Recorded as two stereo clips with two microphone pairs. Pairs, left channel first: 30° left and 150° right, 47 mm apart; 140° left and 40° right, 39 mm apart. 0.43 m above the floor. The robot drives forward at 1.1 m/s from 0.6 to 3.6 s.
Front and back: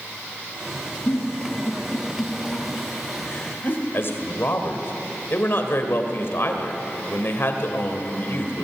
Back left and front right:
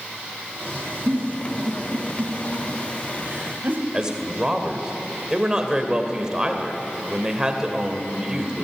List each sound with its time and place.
1.1 s a giggle: 5° right, 5.5 m; by 3.8 s 10° right, 2.5 m
3.9 s a man speaking: 25° left, 2 m